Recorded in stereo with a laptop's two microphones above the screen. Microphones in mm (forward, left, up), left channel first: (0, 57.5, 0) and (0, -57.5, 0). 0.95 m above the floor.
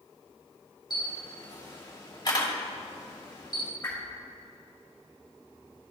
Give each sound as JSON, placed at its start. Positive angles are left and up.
{"t": 0.9, "sound": "a camera shutter", "side_deg": 40, "distance_m": 1.8}
{"t": 3.8, "sound": "a whoosh", "side_deg": 20, "distance_m": 2.5}